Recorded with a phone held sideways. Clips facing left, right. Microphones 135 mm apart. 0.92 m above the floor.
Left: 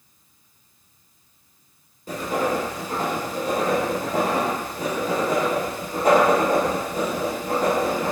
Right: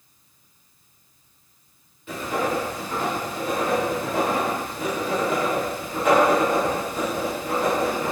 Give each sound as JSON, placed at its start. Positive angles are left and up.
{"t": 2.1, "sound": "writing", "side_deg": 40, "distance_m": 0.9}